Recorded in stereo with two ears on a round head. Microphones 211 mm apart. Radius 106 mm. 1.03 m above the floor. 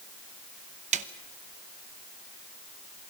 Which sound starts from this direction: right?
A snare drum, at 0.9 s.